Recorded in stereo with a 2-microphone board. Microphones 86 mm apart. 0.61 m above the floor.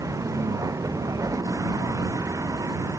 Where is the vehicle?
40° right (ahead or behind).